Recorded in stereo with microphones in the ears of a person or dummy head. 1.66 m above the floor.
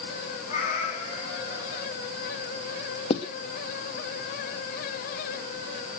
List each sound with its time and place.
0.5 s a cat meowing: 40° left (ahead or behind), 7.5 m; by 1.9 s 35° left (ahead or behind), 6 m
3.1 s writing: 25° left (ahead or behind), 1.1 m